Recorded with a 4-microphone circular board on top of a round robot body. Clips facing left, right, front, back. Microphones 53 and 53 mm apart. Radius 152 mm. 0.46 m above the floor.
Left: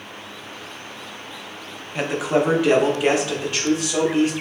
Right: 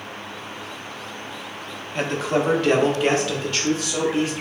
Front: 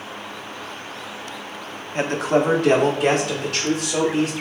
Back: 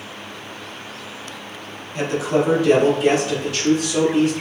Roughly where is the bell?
I don't hear a bell.